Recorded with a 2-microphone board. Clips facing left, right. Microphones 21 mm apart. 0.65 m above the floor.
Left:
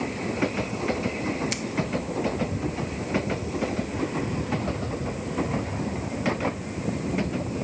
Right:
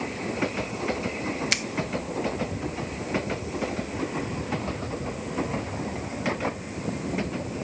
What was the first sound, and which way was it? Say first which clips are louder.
A finger snap: right 5 dB; 35° right (ahead or behind).